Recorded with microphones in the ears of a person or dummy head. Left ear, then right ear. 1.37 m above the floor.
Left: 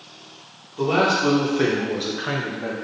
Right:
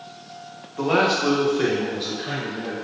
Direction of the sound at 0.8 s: 40° right (ahead or behind).